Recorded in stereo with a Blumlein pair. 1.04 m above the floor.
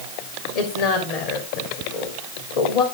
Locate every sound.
0.6 s a woman speaking: 55° left, 3 m